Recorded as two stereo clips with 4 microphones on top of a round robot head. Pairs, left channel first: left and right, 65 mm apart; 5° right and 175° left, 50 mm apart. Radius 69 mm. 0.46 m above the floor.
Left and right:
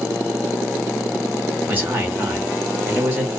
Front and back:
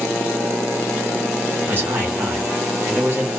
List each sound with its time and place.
1.7 s a man speaking: 145° right, 1.7 m